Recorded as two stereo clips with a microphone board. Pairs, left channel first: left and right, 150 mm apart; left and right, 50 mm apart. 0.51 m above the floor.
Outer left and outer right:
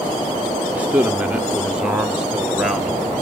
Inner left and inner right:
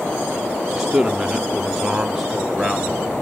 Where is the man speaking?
10° right (ahead or behind), 0.8 m; by 3.1 s centre (ahead or behind), 2.0 m.